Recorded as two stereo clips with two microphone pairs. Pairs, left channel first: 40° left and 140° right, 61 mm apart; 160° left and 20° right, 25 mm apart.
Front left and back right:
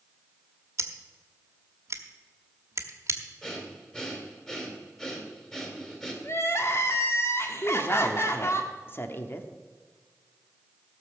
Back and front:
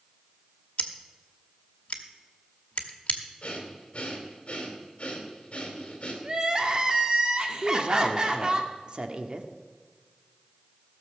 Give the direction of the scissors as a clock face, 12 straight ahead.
6 o'clock.